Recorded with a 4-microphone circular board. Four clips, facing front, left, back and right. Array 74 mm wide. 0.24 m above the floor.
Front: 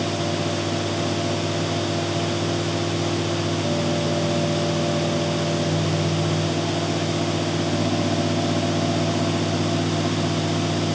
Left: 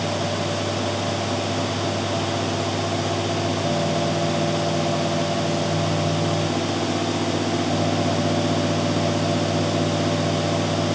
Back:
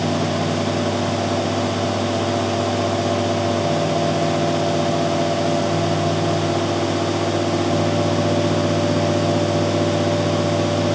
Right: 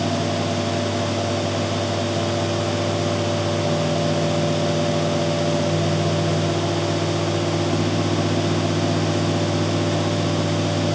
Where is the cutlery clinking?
I don't hear cutlery clinking.